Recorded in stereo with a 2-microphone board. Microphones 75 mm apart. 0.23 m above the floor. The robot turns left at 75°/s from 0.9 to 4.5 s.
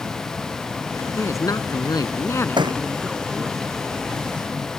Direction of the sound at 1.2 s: 140° left.